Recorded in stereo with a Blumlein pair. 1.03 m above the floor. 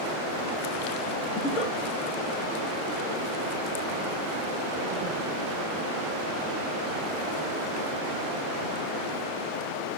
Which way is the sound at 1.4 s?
20° left.